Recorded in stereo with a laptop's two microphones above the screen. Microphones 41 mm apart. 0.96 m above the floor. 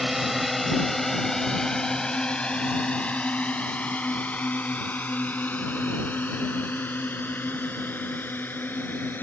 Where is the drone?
5° right (ahead or behind); by 9.2 s 55° left (ahead or behind).